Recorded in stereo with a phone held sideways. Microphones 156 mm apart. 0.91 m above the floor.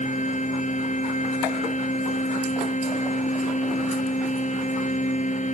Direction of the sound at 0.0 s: 45° left (ahead or behind).